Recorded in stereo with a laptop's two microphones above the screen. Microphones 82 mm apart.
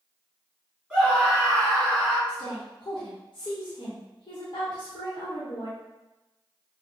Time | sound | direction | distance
0.9 | a scream | 10° left (ahead or behind) | 1.7 m
2.3 | a woman speaking | 55° left (ahead or behind) | 1.0 m